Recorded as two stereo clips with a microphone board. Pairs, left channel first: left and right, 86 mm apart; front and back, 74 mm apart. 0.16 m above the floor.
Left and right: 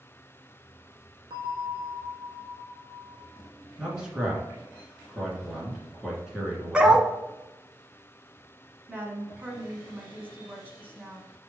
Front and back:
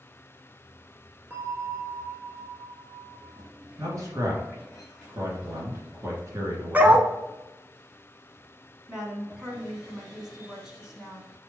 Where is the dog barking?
155° right, 0.5 m.